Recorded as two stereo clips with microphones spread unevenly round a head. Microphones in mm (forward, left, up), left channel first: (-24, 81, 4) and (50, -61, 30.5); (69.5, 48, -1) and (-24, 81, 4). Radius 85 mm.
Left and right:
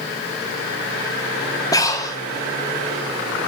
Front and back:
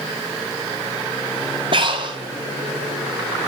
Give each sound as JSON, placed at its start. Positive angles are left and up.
{"t": 1.7, "sound": "breathing", "azimuth_deg": -165, "distance_m": 0.8}